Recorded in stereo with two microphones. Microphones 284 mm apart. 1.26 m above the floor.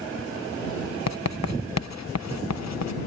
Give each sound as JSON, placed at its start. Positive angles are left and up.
{"t": 1.1, "sound": "writing", "side_deg": 70}